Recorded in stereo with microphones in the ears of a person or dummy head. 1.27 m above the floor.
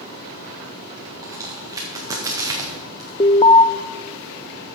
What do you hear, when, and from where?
0.0 s running water: 80° left, 5.5 m
1.2 s a crack: 15° right (ahead or behind), 1.7 m
3.2 s an alarm: 20° left (ahead or behind), 0.5 m